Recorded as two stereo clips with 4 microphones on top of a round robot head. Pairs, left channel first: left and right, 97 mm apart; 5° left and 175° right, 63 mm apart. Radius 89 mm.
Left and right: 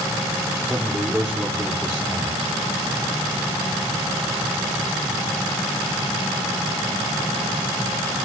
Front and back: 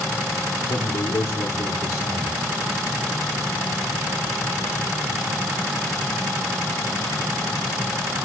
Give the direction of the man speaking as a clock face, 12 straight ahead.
12 o'clock.